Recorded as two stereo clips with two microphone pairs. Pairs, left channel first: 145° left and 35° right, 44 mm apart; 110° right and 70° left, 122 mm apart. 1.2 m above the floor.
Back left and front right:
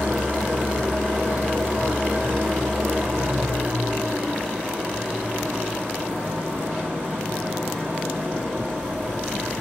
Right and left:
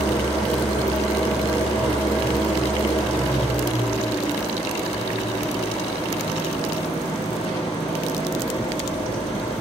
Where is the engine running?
80° right, 4 m.